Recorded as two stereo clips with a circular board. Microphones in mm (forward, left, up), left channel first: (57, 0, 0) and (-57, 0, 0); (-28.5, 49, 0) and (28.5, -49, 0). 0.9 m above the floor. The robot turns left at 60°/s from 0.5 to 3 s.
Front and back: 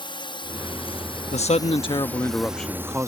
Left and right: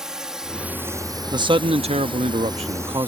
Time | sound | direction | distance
0.0 | a drone | 25° left | ?
1.3 | a man speaking | 10° right | ?